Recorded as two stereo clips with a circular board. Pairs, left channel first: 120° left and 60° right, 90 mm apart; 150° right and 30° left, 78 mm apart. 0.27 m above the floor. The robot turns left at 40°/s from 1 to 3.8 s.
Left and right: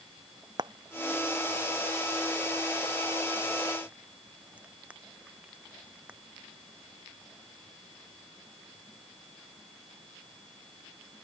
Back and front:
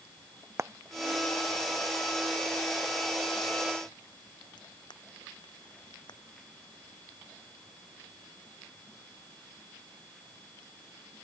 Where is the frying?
25° right; by 6.2 s 135° right.